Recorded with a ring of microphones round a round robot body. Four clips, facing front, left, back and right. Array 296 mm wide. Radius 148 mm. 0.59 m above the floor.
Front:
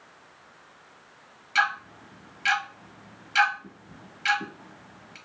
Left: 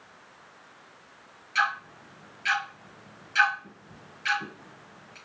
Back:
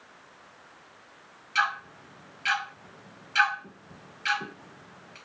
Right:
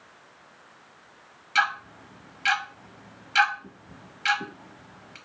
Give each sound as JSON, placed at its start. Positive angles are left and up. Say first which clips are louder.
{"t": 1.6, "sound": "ticking", "louder": "right 2 dB, front 2 dB", "azimuth_deg": -60, "distance_m": 1.0}